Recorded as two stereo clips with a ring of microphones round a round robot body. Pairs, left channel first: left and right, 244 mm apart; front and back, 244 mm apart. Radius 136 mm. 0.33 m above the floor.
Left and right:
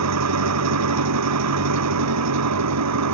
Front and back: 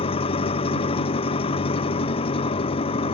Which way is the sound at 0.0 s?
70° right.